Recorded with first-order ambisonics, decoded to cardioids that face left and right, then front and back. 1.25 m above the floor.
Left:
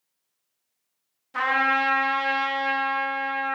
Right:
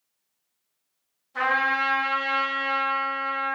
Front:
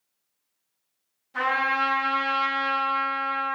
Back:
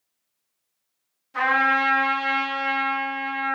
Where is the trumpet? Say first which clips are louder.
Left 1 dB, back 4 dB; 100° left, 0.9 m.